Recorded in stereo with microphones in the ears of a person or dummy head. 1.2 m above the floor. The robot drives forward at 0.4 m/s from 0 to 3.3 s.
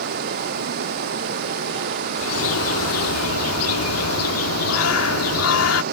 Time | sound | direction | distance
0.0 | running water | 60° right (ahead or behind) | ?
2.2 | a bird | 70° left (ahead or behind) | ?